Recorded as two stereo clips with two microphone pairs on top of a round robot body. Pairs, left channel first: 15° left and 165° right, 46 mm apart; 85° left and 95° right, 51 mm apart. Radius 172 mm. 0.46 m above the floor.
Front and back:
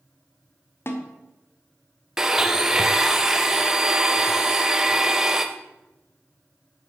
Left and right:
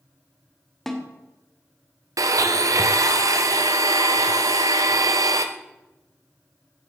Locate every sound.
0.9 s a snare drum: 5° left, 2 m
2.2 s a blender: 85° right, 0.7 m